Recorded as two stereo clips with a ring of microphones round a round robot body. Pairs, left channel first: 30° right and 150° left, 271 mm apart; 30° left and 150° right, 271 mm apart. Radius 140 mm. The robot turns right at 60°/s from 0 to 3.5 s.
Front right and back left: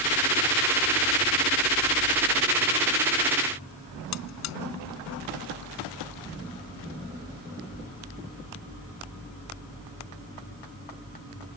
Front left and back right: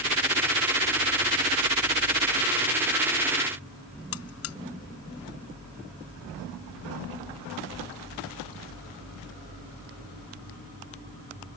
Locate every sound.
4.1 s a buzzer: 5° right